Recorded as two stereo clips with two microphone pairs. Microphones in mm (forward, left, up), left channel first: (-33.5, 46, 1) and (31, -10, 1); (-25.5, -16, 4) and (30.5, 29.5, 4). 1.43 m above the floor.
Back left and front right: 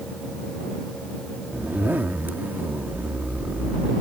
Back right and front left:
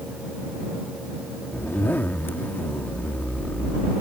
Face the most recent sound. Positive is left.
turn(degrees=-95)